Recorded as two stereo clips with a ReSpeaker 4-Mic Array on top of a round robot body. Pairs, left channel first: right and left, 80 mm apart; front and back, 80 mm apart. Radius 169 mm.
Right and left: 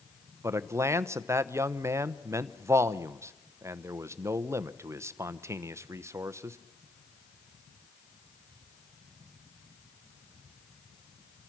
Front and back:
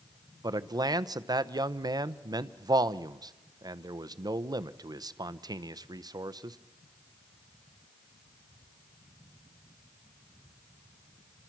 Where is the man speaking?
145° left, 0.9 m.